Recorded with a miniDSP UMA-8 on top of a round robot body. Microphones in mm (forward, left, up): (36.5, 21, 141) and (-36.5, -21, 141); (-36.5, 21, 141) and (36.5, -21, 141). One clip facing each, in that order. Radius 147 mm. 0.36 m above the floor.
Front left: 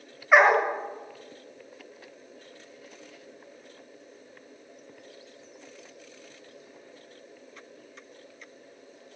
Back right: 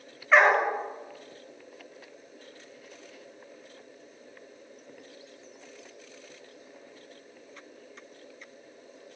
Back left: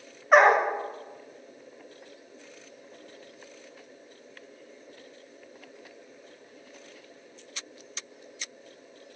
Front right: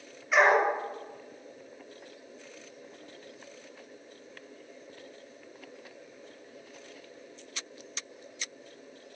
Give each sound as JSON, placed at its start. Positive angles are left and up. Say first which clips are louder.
{"t": 0.3, "sound": "a dog barking", "louder": "front left 2 dB, back left 4 dB", "azimuth_deg": 105, "distance_m": 0.7}